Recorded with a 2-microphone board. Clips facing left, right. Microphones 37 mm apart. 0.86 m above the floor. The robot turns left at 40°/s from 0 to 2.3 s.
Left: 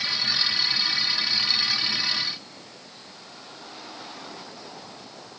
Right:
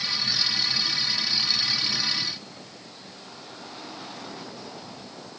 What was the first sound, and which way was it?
Only background noise.